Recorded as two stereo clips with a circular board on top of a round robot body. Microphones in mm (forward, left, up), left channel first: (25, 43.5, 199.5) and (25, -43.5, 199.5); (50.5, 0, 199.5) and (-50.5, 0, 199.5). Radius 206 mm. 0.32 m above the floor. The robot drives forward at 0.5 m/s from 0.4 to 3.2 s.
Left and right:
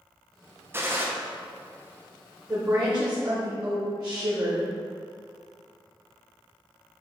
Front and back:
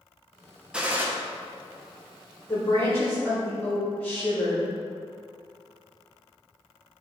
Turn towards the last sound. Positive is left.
turn(degrees=-70)